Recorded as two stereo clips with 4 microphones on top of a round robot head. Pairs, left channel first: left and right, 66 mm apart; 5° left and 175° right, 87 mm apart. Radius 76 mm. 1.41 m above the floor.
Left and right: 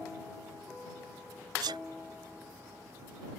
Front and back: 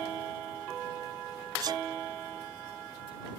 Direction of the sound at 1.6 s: 125° right.